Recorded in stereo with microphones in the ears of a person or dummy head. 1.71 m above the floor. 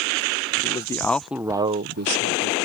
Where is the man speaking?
25° left (ahead or behind); by 2.5 s 65° right (ahead or behind).